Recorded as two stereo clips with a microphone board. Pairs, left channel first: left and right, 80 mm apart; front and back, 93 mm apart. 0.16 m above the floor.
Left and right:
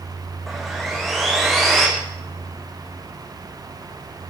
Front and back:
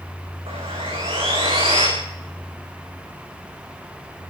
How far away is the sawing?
About 10 m.